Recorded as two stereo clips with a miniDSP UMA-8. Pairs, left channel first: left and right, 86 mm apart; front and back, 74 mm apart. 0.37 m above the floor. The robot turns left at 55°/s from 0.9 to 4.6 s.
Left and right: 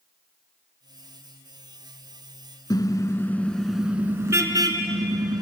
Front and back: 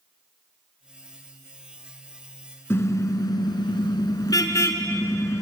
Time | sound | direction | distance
2.7 | a car horn | 55° left | 2 m